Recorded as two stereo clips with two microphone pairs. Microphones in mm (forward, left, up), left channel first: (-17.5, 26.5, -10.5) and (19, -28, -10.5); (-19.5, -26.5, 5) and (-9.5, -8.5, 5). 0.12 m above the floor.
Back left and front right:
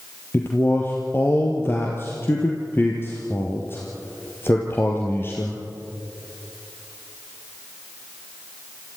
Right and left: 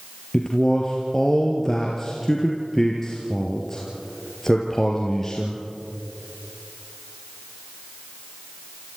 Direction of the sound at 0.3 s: 170° left.